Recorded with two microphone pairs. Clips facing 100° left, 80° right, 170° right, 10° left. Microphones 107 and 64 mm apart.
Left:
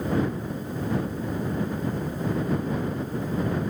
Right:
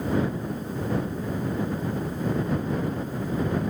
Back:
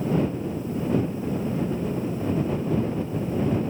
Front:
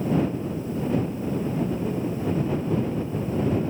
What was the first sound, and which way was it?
Only background noise.